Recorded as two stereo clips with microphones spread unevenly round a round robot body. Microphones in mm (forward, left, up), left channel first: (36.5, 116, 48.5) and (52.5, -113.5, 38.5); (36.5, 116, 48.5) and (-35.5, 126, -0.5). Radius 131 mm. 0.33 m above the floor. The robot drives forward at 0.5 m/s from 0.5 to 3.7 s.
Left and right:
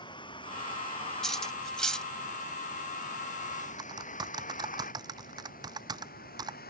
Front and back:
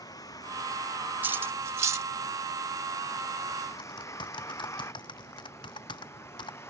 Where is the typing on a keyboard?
15° right.